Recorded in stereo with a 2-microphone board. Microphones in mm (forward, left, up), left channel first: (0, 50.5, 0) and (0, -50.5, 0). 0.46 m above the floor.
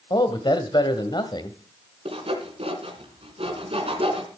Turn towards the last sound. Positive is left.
turn(degrees=-65)  # may be behind; listen again after turning